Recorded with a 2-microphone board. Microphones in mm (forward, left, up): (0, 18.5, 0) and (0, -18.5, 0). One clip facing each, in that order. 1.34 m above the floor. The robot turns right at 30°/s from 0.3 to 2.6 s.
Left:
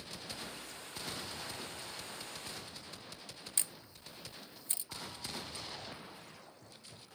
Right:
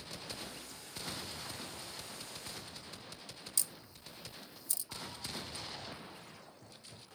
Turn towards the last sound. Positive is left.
turn(degrees=35)  # may be behind; listen again after turning